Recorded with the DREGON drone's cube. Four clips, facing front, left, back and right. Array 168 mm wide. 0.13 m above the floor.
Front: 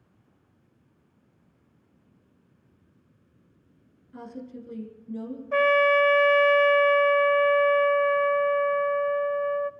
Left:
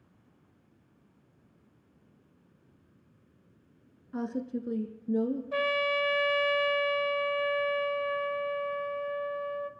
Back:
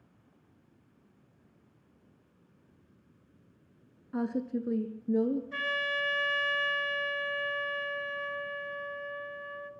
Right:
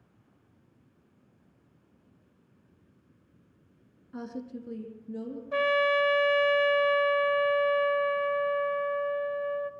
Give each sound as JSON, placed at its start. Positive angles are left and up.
{"t": 4.1, "sound": "a woman speaking", "azimuth_deg": 155, "distance_m": 1.5}
{"t": 5.5, "sound": "a trumpet", "azimuth_deg": -5, "distance_m": 0.6}